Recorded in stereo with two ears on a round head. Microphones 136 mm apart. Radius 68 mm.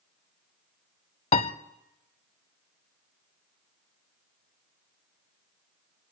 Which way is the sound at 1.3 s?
40° left (ahead or behind).